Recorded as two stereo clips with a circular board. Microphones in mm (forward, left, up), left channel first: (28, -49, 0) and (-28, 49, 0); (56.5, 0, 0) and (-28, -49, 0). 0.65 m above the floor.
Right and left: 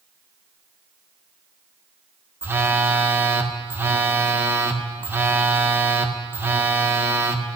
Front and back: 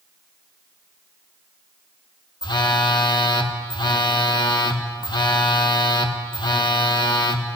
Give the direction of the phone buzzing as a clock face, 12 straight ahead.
10 o'clock.